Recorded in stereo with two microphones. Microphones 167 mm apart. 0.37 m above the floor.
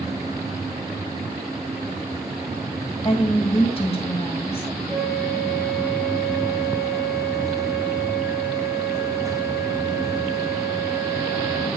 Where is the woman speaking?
35° left (ahead or behind), 1.8 m.